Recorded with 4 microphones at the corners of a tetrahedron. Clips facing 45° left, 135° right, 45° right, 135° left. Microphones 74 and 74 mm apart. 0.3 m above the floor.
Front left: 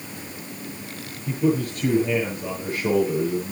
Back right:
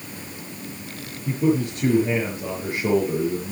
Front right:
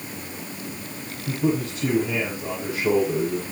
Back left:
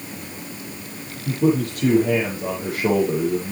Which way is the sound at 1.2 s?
165° left.